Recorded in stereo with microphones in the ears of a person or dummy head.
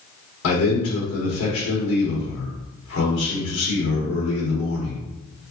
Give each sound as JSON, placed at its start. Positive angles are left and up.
{"t": 0.4, "sound": "a man speaking", "side_deg": 70, "distance_m": 1.5}